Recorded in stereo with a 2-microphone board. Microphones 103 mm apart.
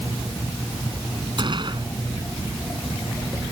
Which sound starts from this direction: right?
A gunshot, at 1.4 s.